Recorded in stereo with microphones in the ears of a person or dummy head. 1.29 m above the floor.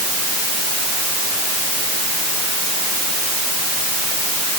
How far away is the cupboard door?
No cupboard door in this recording.